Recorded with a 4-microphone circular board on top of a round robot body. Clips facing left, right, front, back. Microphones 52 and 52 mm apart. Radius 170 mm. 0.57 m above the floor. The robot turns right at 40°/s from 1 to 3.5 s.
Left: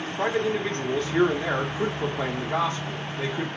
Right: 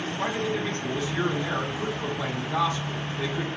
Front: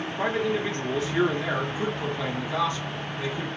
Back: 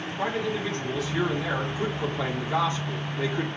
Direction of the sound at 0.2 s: 55° left.